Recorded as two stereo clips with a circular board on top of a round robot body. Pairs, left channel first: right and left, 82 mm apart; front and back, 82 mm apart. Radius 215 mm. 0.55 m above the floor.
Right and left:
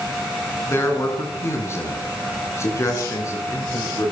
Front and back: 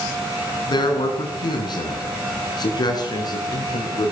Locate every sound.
0.7 s a man speaking: 30° right, 8 m; by 4.1 s 35° right, 9.5 m